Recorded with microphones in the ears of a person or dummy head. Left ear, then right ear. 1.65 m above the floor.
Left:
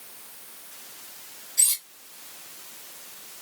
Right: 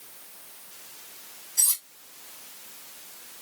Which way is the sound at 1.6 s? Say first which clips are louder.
Left 2 dB; 65° right (ahead or behind).